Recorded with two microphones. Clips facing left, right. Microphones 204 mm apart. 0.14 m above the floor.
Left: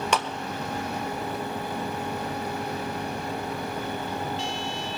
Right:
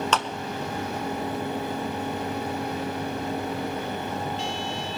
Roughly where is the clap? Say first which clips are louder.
Left 2 dB; centre.